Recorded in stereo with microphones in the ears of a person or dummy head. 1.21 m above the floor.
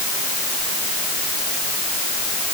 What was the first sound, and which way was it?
Only background noise.